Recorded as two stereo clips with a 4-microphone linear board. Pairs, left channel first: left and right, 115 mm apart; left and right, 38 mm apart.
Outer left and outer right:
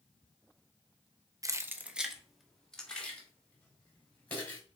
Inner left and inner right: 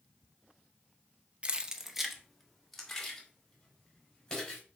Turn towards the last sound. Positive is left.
turn(degrees=15)  # may be behind; listen again after turning